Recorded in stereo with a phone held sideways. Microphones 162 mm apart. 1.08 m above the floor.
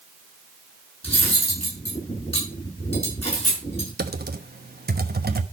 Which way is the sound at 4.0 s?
75° right (ahead or behind).